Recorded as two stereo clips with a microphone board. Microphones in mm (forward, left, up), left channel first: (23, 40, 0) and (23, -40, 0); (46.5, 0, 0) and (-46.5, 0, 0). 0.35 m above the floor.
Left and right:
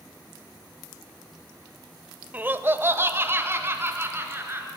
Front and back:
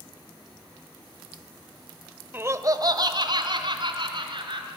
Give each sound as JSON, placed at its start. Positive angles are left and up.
{"t": 2.3, "sound": "laughter", "azimuth_deg": -135, "distance_m": 0.9}